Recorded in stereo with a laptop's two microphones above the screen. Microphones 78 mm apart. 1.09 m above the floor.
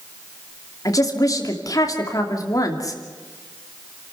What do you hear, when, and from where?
0.8 s a woman speaking: 45° left (ahead or behind), 3 m